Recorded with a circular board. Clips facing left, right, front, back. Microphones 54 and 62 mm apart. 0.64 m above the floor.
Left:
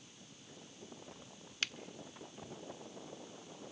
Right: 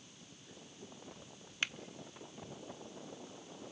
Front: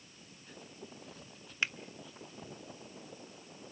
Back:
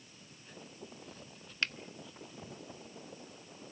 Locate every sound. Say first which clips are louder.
1.6 s a finger snap: right 2 dB, front 1 dB; 55° right, 0.7 m